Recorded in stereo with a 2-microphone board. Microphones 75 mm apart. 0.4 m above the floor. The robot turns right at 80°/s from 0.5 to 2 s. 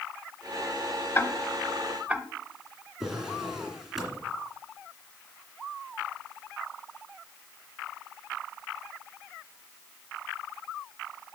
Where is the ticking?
35° left (ahead or behind), 0.8 m; by 2.2 s 15° right (ahead or behind), 0.8 m.